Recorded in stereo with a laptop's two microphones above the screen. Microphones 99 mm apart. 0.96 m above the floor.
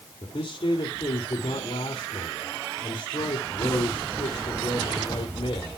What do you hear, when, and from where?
0.2 s a man speaking: 75° left (ahead or behind), 2.5 m